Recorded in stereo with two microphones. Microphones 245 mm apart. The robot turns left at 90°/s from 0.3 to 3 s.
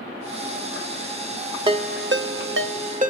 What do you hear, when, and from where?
1.7 s a ringtone: 20° right (ahead or behind), 0.6 m; by 3.1 s 30° right (ahead or behind), 0.6 m